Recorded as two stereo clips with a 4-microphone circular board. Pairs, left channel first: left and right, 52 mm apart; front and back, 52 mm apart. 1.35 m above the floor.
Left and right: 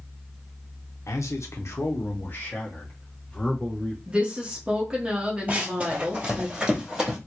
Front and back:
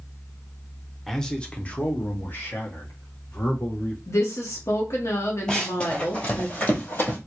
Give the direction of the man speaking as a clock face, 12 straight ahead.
9 o'clock.